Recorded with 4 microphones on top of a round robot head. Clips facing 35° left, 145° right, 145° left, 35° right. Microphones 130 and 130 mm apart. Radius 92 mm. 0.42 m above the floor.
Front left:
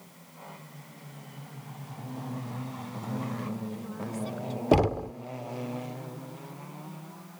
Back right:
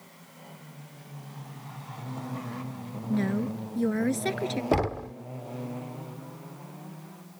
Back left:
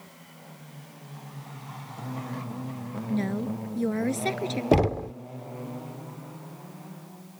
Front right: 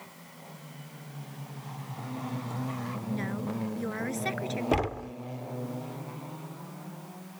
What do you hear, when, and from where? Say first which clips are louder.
3.1 s a woman speaking: back right 7 dB, back left 6 dB; 155° right
4.7 s knocking: front left 6 dB, back left 8 dB; 100° left